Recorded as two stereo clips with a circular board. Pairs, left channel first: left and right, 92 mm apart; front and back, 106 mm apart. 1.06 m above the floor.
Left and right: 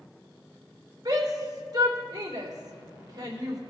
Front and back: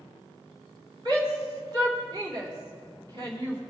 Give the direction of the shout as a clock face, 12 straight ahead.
4 o'clock.